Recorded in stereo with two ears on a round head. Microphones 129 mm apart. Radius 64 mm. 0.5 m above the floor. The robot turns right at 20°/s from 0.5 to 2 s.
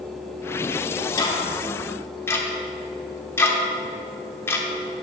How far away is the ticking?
About 1.0 m.